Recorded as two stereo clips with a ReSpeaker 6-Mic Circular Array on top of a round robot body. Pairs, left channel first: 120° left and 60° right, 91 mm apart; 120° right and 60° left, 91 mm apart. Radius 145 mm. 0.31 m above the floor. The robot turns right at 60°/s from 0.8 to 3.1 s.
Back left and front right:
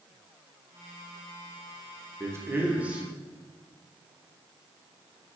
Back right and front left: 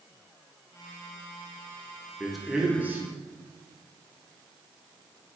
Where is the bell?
No bell in this recording.